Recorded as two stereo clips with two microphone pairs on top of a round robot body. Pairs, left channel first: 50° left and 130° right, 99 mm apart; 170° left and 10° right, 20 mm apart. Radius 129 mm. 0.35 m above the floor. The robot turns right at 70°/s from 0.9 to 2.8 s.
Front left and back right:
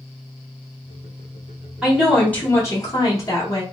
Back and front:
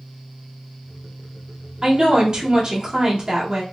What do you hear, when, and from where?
1.8 s a woman speaking: 65° right, 1.7 m; by 3.6 s 5° left, 1.7 m